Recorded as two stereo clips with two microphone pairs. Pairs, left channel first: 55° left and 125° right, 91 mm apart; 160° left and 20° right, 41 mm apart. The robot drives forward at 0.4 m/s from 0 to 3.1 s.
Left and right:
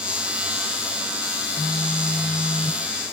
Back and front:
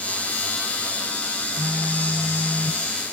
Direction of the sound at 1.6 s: 55° left.